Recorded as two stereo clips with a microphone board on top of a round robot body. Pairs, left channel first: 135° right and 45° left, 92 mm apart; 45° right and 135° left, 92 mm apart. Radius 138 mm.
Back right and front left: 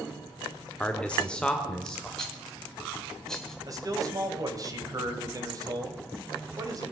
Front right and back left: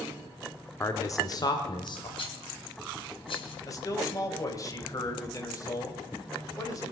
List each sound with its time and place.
0.8 s a man speaking: 70° right, 1.4 m; by 2.1 s 50° right, 2.5 m
2.2 s a rattle: 50° right, 2.5 m
3.7 s a man speaking: straight ahead, 2.5 m